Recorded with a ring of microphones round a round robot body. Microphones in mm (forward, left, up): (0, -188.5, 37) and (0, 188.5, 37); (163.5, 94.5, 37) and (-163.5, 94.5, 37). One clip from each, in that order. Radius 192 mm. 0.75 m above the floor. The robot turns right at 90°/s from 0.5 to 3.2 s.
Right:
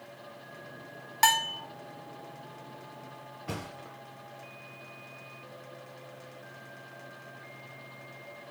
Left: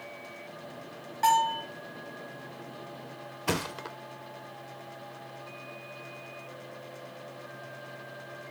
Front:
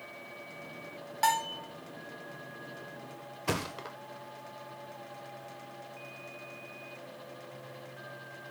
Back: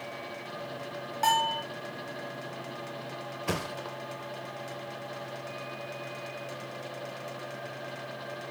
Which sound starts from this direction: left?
A thud, at 3.5 s.